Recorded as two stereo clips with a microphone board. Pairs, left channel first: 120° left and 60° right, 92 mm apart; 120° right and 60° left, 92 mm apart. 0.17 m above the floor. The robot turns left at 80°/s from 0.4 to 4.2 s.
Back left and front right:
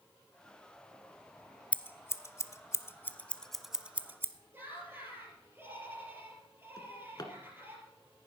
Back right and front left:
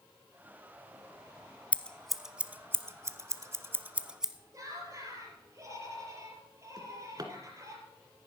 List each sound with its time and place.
1.7 s scissors: straight behind, 0.6 m; by 4.3 s 15° right, 0.6 m
4.5 s laughter: 5° left, 4.5 m
6.8 s a drawer: 85° left, 1.4 m